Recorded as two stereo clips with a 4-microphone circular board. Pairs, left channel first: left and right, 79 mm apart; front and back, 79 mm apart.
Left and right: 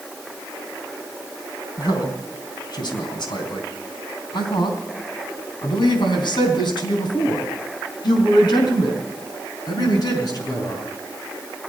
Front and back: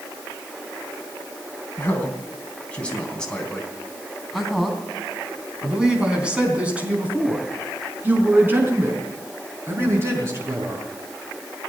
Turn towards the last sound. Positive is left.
turn(degrees=125)